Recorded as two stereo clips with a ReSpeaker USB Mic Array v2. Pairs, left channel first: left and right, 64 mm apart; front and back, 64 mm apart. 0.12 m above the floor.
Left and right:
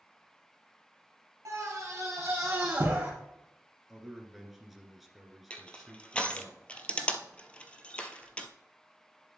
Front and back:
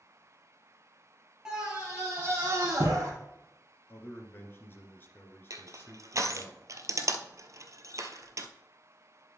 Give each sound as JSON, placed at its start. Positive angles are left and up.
{"t": 1.4, "sound": "a scream", "azimuth_deg": -105, "distance_m": 2.0}
{"t": 3.9, "sound": "a man speaking", "azimuth_deg": -5, "distance_m": 1.8}
{"t": 5.5, "sound": "crushing", "azimuth_deg": 160, "distance_m": 0.9}